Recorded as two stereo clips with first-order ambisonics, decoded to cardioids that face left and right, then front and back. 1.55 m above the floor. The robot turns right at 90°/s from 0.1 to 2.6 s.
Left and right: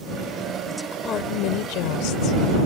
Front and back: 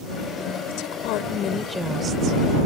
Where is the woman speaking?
10° right; by 2.4 s 145° left.